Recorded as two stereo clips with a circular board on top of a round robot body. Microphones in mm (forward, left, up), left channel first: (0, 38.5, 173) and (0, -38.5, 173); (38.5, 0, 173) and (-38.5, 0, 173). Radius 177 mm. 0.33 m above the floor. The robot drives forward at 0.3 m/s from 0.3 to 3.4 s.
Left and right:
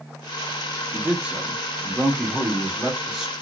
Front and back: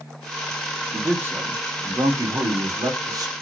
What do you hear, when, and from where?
0.9 s a man speaking: 150° right, 0.9 m; by 3.3 s 170° right, 1.3 m